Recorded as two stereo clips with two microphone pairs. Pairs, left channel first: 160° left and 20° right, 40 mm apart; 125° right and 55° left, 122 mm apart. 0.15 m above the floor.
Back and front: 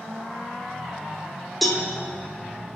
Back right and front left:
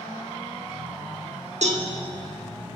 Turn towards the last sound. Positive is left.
turn(degrees=75)